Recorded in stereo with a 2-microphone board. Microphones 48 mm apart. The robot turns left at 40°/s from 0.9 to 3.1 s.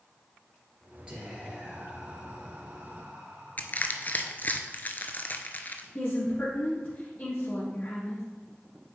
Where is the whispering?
25° right, 2.5 m; by 4.5 s 105° right, 2.5 m.